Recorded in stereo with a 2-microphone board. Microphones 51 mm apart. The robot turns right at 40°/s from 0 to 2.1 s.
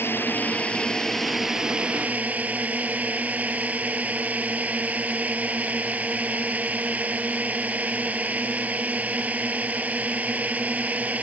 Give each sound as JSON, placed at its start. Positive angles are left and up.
{"t": 0.0, "sound": "a drone", "azimuth_deg": 125}